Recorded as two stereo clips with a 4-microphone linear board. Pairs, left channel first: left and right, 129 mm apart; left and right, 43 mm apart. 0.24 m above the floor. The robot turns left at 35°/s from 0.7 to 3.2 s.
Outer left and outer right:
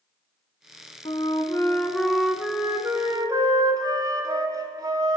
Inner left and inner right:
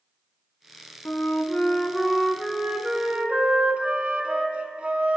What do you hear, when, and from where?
1.1 s a flute: 45° left, 0.7 m; by 5.2 s 30° right, 0.7 m